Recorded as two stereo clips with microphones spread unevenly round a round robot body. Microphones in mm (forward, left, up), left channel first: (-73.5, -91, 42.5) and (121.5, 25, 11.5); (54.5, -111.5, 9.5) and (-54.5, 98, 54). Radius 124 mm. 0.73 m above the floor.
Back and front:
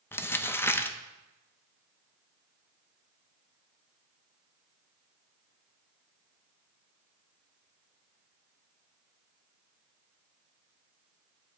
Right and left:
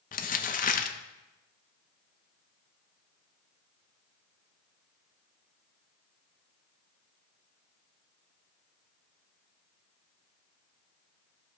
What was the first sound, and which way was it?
Crumpling, 65° right.